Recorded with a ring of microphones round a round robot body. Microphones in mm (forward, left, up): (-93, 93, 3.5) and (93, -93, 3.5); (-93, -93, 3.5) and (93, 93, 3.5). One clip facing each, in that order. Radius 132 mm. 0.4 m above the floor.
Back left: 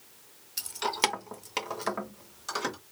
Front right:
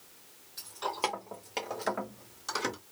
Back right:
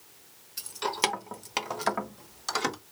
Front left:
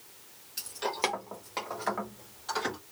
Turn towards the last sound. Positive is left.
turn(degrees=-130)